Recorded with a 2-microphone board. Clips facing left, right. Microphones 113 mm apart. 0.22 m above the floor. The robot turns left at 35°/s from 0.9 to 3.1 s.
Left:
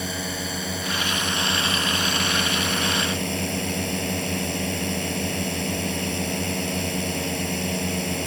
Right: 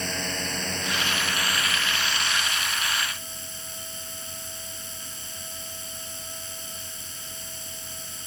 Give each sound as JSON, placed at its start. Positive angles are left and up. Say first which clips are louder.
{"t": 0.0, "sound": "a drone", "louder": "left 2 dB", "azimuth_deg": 175}